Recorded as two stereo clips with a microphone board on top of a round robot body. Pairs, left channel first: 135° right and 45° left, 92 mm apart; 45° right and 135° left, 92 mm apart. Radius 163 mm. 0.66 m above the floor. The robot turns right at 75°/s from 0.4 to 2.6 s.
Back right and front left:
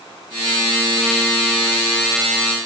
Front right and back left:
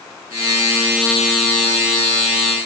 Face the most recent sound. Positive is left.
No sound to turn to.